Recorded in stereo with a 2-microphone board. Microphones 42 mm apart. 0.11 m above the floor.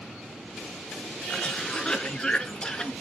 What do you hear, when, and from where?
1.3 s a cough: 25° left (ahead or behind), 1.2 m